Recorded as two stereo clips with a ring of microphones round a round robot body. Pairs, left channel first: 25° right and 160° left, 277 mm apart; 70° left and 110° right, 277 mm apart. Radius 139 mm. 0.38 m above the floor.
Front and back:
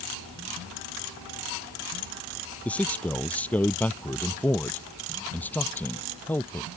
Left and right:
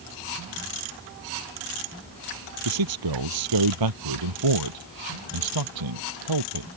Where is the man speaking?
110° right; by 6.7 s 105° right.